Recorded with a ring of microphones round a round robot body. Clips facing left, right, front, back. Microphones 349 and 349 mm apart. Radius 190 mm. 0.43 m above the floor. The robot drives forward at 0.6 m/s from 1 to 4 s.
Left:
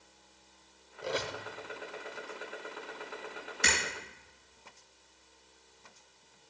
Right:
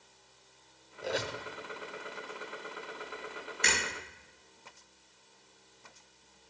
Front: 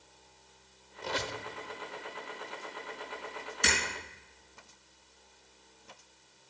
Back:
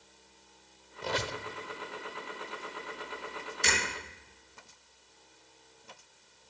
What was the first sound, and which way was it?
A squeak, 175° left.